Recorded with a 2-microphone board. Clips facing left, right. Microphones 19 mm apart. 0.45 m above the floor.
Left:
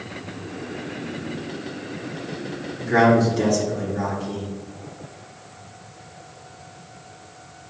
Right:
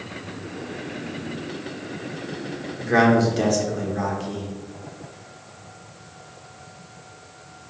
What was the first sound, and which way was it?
A man speaking, 25° right (ahead or behind).